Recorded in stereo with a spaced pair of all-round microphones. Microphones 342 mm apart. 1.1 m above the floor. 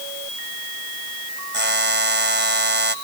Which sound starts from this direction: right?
A buzzer, at 1.5 s.